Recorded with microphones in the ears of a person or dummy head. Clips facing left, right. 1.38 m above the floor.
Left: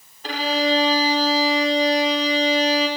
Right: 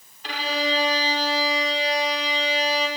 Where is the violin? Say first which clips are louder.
Left 5 dB; 45° left (ahead or behind), 2.5 m.